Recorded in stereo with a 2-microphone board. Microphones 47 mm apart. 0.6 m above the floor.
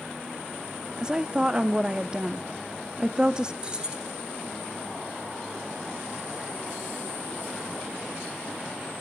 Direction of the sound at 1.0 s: 20° right (ahead or behind).